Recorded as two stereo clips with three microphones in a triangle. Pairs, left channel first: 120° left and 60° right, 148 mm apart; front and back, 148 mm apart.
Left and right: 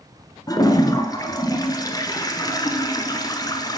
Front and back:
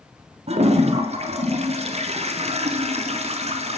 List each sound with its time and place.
0.5 s a toilet flushing: 170° left, 0.5 m